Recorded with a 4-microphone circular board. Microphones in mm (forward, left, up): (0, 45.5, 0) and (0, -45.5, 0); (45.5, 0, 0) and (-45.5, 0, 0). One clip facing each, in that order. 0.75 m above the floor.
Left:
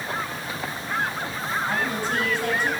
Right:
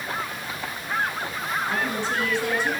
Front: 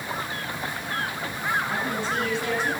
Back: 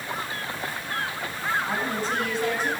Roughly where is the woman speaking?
Behind left.